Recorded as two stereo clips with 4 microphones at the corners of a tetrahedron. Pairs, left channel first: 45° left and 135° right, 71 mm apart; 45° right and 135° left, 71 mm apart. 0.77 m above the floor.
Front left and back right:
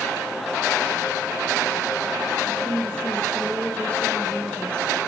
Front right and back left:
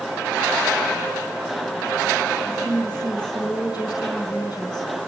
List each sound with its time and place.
2.5 s a woman speaking: 30° right, 3 m